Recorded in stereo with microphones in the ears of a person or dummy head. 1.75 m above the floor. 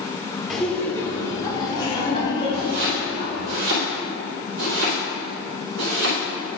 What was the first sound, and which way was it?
Laughter, 5° left (ahead or behind).